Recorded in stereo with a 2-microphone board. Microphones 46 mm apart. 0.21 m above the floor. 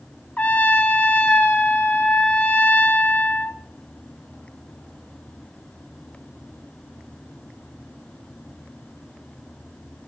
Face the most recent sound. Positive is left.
turn(degrees=35)  # may be behind; listen again after turning